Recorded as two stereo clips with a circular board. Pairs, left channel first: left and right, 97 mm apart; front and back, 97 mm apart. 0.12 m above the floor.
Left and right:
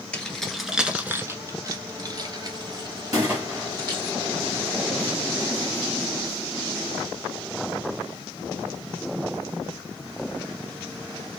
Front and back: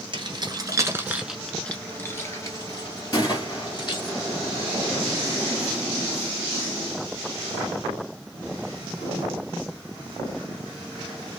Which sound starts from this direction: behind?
Keys jangling, at 0.1 s.